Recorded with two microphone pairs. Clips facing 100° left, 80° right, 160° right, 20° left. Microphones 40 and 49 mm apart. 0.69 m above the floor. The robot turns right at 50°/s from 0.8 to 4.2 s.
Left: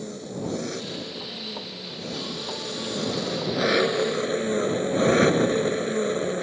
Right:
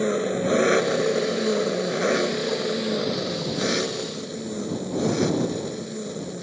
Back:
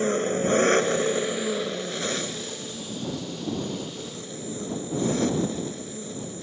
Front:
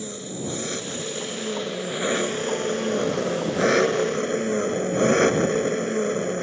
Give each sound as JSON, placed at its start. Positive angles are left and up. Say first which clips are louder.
{"t": 0.0, "sound": "an engine running", "louder": "right 10 dB, back 9 dB", "azimuth_deg": -115}